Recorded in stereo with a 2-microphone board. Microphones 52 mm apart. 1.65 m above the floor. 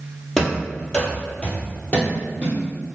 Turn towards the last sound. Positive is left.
turn(degrees=25)  # may be behind; listen again after turning